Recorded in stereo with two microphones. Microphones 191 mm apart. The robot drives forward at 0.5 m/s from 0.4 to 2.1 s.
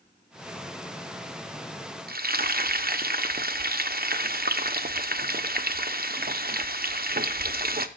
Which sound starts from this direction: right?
Frying, at 2.1 s.